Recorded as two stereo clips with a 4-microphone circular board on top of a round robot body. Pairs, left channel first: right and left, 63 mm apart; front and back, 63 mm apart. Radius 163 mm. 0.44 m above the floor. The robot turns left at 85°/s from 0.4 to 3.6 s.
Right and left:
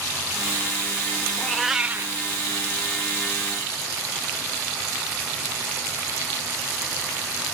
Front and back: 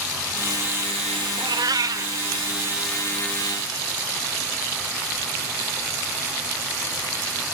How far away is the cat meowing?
About 0.9 m.